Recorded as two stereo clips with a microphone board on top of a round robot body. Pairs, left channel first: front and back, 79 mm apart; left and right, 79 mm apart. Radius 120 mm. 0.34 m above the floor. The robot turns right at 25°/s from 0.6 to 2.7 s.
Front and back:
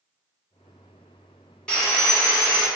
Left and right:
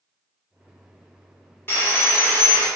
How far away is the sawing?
About 1.5 m.